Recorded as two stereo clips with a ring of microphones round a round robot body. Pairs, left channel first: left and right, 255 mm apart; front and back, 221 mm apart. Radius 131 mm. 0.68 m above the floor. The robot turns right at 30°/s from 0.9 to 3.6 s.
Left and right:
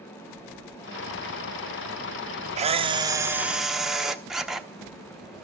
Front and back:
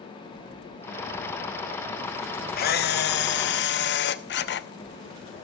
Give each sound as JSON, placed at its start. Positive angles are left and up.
{"t": 2.6, "sound": "a camera shutter", "azimuth_deg": -35, "distance_m": 0.8}